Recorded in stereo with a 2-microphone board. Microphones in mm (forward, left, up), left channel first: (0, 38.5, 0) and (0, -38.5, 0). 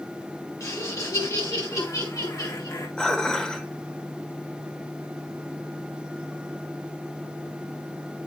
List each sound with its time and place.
0.6 s laughter: 40° left (ahead or behind), 6.5 m; by 2.9 s 50° left (ahead or behind), 7.5 m
3.0 s dishes clattering: 10° left (ahead or behind), 1.5 m